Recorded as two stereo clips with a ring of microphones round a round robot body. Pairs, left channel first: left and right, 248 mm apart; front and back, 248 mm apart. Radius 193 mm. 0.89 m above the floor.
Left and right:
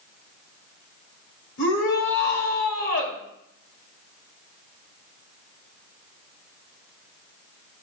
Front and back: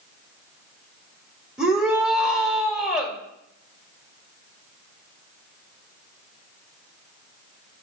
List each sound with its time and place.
1.6 s a shout: 95° left, 2.5 m